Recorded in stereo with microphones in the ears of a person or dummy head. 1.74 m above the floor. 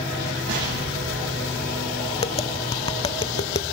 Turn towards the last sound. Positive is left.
turn(degrees=30)  # may be behind; listen again after turning